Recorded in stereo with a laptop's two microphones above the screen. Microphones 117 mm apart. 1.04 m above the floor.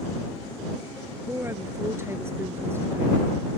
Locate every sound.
1.3 s a woman speaking: 20° right (ahead or behind)